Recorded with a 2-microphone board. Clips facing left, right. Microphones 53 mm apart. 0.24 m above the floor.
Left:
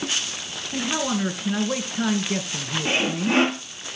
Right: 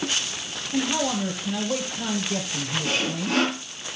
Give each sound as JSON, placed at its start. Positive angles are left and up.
{"t": 0.7, "sound": "a man speaking", "side_deg": 55, "distance_m": 4.0}
{"t": 2.9, "sound": "sawing", "side_deg": 30, "distance_m": 1.0}